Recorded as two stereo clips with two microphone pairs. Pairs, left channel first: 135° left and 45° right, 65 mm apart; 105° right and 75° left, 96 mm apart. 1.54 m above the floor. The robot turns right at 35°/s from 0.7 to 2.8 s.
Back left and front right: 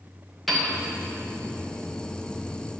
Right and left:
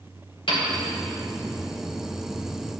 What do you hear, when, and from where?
0.5 s a piano: 135° right, 2 m